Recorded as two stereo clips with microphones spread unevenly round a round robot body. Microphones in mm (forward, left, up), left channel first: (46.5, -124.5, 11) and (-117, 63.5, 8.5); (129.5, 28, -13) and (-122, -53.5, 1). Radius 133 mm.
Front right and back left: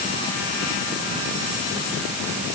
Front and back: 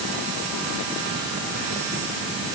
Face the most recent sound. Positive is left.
No sound to turn to.